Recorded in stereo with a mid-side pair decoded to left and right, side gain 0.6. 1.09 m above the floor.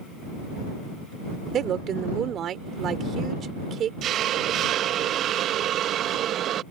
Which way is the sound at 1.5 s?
50° right.